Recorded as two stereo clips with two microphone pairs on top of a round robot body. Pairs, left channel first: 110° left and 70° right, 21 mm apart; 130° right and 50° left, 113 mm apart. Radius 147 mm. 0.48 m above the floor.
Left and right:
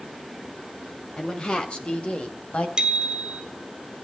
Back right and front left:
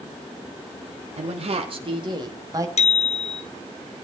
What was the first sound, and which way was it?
A woman speaking, 65° left.